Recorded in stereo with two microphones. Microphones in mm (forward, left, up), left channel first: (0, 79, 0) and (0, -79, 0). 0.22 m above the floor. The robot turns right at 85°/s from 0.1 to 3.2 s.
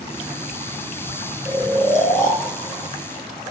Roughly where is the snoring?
Ahead.